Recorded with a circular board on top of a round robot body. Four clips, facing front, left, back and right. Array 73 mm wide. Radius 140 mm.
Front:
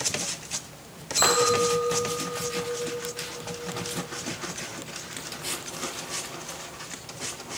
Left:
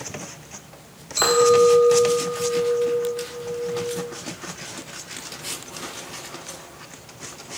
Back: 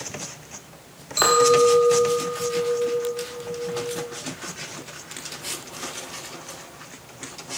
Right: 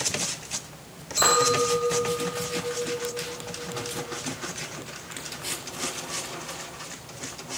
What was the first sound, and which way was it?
A clink, 150° left.